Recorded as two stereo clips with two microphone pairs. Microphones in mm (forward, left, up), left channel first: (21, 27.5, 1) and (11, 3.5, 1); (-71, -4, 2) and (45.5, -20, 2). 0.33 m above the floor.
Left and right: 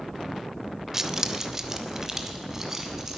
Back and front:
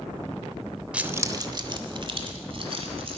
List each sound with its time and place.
0.9 s keys jangling: 75° right, 0.5 m; by 3.2 s 40° right, 1.9 m